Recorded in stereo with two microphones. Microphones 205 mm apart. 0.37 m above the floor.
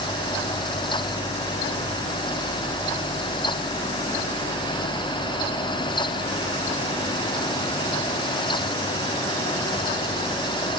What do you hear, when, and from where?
Only background noise.